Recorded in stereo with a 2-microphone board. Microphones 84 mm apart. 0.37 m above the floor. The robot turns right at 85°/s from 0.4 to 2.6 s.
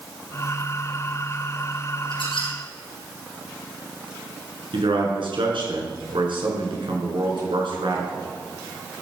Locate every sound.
2.1 s a squeak: 80° left, 4.5 m; by 2.5 s 115° left, 4.5 m
4.7 s a man speaking: 75° right (ahead or behind), 5 m